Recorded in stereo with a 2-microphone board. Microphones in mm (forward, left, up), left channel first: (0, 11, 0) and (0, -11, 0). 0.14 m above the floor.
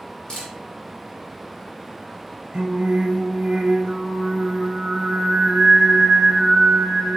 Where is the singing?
40° right (ahead or behind), 1.4 m.